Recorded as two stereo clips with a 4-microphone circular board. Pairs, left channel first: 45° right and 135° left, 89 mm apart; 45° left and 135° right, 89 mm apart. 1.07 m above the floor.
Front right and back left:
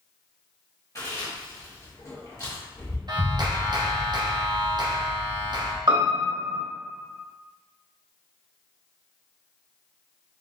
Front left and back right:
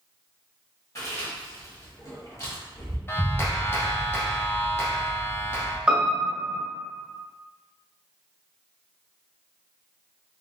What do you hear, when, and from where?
0.9 s chewing: 5° right, 1.4 m
3.1 s a clap: 105° left, 0.6 m
5.9 s a piano: 150° left, 1.1 m